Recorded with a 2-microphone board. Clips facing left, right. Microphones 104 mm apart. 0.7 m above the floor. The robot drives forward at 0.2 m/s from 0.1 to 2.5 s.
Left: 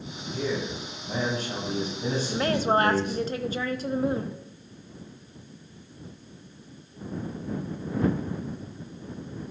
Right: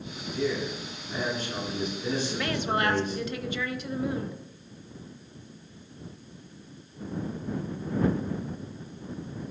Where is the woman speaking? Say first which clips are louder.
Left 5 dB; 40° left (ahead or behind), 0.7 m.